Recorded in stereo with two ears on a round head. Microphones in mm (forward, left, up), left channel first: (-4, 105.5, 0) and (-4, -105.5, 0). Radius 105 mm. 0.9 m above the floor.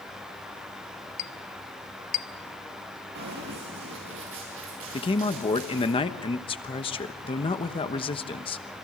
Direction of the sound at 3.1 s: 45° right (ahead or behind).